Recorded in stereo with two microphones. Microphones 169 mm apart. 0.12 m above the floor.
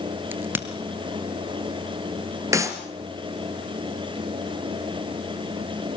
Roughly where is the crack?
Centre.